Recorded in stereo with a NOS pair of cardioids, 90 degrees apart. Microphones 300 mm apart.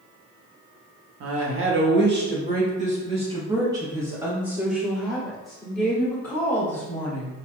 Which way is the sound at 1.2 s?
55° right.